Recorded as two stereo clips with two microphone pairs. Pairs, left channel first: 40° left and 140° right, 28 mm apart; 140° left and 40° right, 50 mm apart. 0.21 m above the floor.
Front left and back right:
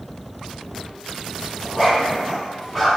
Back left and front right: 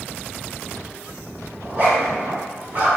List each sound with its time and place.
1.6 s a zipper: 30° right, 1.8 m